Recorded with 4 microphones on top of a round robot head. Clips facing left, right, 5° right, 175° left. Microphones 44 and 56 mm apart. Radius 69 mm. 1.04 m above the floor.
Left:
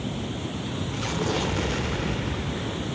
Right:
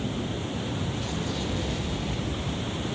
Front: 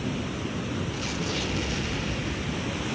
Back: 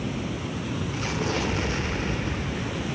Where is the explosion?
120° left, 1.2 m.